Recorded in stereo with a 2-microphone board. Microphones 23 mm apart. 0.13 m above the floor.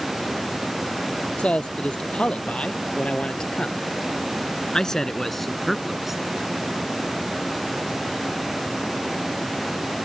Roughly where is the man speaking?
Left.